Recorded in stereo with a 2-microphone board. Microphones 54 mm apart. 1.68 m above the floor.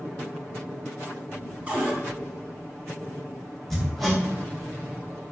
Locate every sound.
1.7 s a cupboard door: 25° right (ahead or behind), 1.0 m
3.7 s hammering: 5° left (ahead or behind), 1.0 m